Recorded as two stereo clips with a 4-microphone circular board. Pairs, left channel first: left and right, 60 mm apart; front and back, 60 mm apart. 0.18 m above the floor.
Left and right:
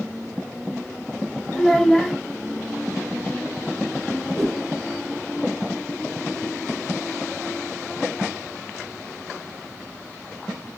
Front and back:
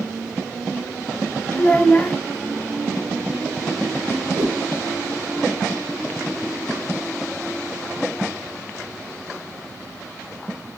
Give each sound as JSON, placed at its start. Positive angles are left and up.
{"t": 1.5, "sound": "a child speaking", "azimuth_deg": 15, "distance_m": 0.9}
{"t": 4.4, "sound": "a whoosh", "azimuth_deg": 170, "distance_m": 1.7}